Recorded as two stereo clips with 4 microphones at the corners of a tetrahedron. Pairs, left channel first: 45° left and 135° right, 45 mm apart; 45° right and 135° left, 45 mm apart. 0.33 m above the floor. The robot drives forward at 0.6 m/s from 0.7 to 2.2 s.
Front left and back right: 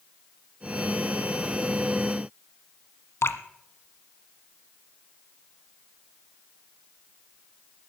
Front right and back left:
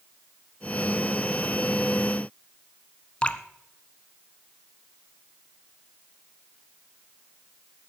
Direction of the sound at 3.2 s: 20° left.